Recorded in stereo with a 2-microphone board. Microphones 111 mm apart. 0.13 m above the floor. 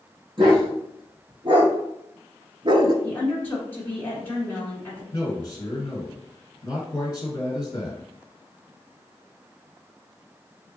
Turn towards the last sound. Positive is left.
turn(degrees=35)  # may be behind; listen again after turning